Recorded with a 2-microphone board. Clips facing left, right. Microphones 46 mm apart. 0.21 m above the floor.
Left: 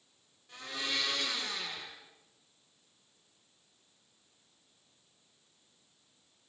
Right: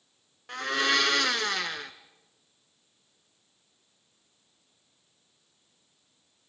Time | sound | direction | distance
0.5 | a blender | 65° right (ahead or behind) | 1.5 m